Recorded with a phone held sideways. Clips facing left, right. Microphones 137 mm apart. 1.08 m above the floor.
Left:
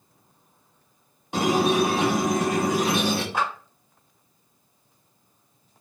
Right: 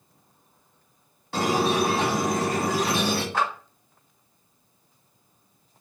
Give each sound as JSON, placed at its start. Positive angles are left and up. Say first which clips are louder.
{"t": 1.3, "sound": "a squeak", "louder": "left 2 dB", "side_deg": 20, "distance_m": 1.0}
{"t": 3.3, "sound": "a clap", "louder": "right 1 dB", "side_deg": 15, "distance_m": 1.2}